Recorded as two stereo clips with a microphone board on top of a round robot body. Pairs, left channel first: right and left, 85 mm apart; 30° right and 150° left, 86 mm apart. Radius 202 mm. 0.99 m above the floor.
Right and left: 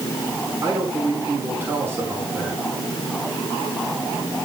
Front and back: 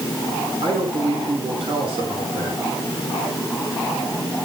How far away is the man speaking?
About 5 m.